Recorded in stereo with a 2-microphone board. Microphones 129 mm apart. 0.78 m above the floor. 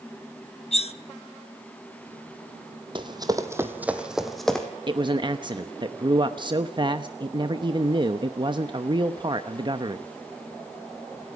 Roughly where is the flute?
I don't hear a flute.